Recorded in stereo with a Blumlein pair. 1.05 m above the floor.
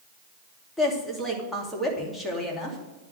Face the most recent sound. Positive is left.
turn(degrees=5)